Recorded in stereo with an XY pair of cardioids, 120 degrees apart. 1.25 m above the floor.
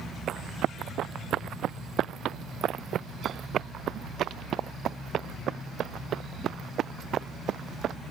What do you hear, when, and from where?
0.3 s running footsteps: 60° right; by 8.0 s 55° right